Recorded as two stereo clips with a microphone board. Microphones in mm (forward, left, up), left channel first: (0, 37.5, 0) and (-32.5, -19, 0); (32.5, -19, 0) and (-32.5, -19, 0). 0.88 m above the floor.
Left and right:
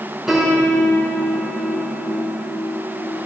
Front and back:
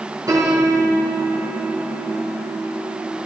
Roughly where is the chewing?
I don't hear chewing.